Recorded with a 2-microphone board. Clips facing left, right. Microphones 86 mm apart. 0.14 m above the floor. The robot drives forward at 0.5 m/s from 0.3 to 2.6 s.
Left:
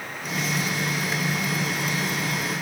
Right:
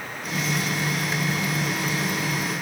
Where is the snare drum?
No snare drum in this recording.